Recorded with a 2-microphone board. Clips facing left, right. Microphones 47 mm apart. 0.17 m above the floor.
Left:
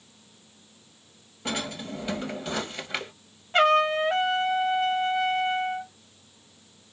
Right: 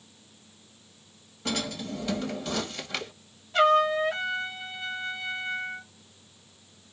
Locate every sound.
1.4 s a drawer: 20° left (ahead or behind), 1.0 m
3.5 s a trumpet: 40° left (ahead or behind), 0.8 m